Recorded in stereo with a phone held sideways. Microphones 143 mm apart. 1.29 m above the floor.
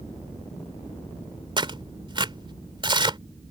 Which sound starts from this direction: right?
Tearing paper, at 1.6 s.